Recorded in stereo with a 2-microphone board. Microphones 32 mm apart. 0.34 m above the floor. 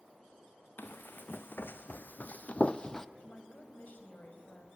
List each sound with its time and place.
0.8 s running footsteps: 75° left (ahead or behind), 1.3 m; by 3.0 s 15° left (ahead or behind), 0.5 m
3.2 s a woman speaking: 50° left (ahead or behind), 2.5 m